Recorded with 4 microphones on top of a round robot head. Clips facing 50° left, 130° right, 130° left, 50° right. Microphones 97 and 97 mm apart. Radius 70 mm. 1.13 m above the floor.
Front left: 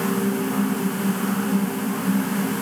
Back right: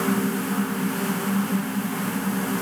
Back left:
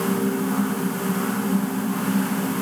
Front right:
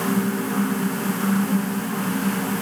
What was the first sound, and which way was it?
Only background noise.